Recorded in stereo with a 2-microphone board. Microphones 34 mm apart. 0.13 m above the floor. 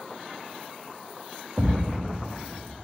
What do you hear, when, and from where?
1.6 s a thud: 55° right (ahead or behind), 5 m